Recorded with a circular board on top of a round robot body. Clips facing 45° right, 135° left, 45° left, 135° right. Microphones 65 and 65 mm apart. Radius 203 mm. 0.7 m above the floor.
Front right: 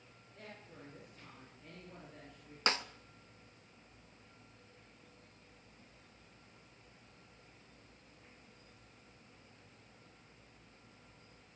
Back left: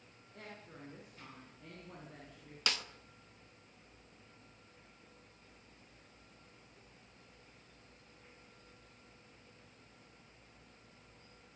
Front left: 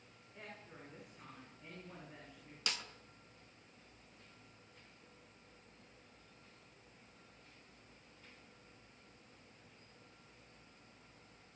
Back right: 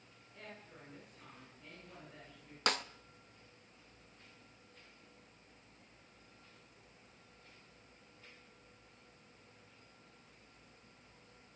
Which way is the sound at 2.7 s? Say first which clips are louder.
Front right 4 dB, back right 8 dB; 100° right.